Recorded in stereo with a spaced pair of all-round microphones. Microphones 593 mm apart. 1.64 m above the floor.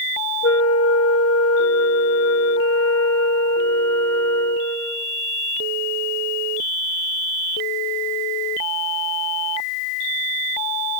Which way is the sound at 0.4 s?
25° left (ahead or behind).